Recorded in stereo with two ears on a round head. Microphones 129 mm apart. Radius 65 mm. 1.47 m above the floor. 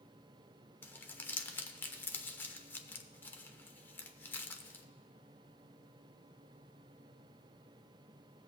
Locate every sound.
0.8 s crumpling: 15° left (ahead or behind), 0.7 m